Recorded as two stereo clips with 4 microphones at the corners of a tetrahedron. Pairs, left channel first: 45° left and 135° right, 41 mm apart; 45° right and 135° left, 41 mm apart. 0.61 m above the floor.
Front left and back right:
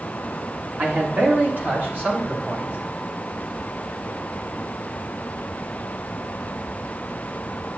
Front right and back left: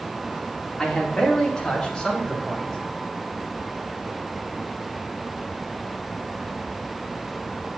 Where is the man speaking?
100° right, 1.4 m; by 2.8 s 115° right, 2 m.